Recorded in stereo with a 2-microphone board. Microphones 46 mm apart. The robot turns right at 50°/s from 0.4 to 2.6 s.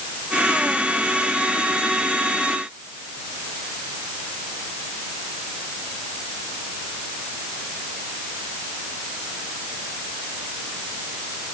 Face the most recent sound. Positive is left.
No sound to turn to.